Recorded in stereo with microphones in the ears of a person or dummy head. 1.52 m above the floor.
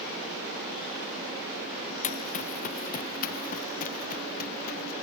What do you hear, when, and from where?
2.0 s running footsteps: 45° left (ahead or behind); by 4.9 s 55° left (ahead or behind)